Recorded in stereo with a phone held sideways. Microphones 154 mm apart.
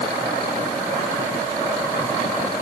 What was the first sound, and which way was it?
Only background noise.